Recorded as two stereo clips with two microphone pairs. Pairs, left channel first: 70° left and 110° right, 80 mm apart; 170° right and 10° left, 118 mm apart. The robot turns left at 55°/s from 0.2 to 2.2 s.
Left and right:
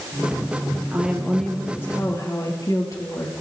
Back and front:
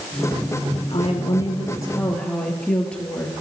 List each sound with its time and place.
0.9 s a woman speaking: straight behind, 3.5 m; by 3.3 s 110° left, 3.5 m